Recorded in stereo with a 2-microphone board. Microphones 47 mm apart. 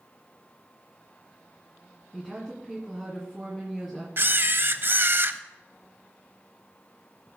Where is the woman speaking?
10° right (ahead or behind), 2.5 m.